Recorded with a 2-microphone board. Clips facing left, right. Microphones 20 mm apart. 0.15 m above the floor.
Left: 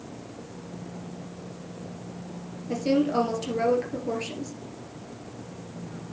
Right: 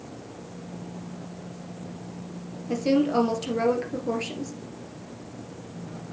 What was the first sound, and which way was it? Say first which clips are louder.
A woman speaking: right 1 dB; 10° right (ahead or behind).